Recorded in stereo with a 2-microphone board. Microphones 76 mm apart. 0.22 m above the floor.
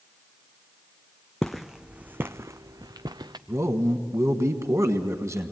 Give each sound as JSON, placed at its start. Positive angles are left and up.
{"t": 1.4, "sound": "footsteps", "side_deg": 5, "distance_m": 0.7}
{"t": 3.5, "sound": "a man speaking", "side_deg": -40, "distance_m": 1.4}